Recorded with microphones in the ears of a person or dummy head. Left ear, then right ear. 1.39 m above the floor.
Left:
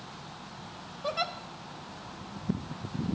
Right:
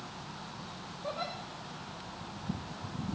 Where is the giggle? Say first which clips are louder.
Left 6 dB; 70° left (ahead or behind), 1.1 m.